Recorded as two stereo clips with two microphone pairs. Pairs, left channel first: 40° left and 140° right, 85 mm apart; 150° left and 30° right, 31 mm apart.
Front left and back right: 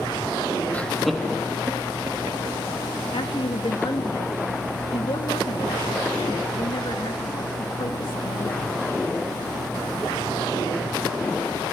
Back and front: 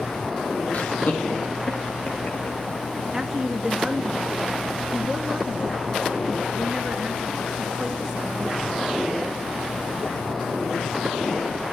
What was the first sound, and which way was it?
Laughter, 110° left.